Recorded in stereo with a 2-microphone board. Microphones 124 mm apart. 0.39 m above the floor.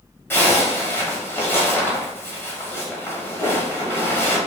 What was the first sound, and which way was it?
A zipper, 20° left (ahead or behind).